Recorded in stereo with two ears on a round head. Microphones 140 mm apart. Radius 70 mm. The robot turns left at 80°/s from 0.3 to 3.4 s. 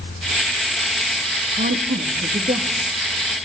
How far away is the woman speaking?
About 1.6 m.